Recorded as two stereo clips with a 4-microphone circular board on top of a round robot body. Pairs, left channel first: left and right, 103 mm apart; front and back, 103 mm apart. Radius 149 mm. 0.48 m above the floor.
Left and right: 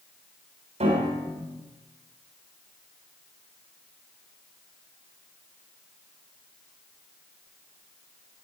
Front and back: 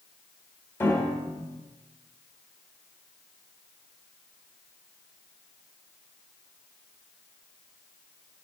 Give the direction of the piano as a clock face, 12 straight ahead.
2 o'clock.